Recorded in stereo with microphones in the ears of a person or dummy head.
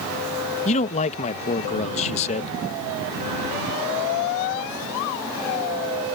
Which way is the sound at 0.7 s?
35° left (ahead or behind).